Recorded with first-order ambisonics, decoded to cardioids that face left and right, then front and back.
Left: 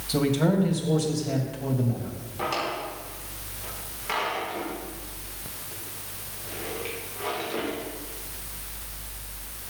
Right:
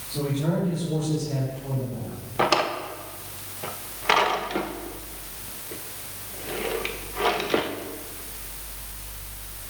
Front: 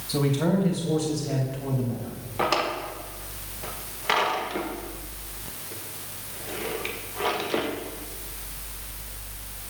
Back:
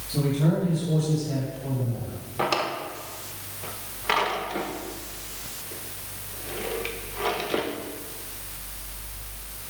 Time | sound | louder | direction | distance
0.1 | a man speaking | left 4 dB, front 2 dB | 60° left | 3 m
2.4 | a drawer | right 6 dB, front 1 dB | 85° right | 1.0 m